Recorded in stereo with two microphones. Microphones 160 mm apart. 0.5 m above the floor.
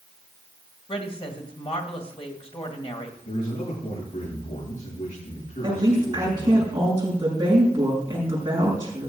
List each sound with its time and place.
0.9 s a woman speaking: 40° left (ahead or behind), 2.5 m
3.2 s a man speaking: 65° left (ahead or behind), 8.5 m
5.6 s a woman speaking: 25° right (ahead or behind), 6.5 m